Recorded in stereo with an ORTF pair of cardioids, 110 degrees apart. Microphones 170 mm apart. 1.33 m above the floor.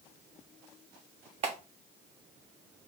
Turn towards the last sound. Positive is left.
turn(degrees=-40)